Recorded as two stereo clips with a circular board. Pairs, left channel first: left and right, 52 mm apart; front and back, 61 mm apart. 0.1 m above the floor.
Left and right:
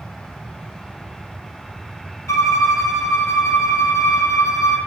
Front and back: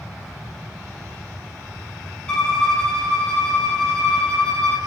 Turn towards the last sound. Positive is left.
turn(degrees=75)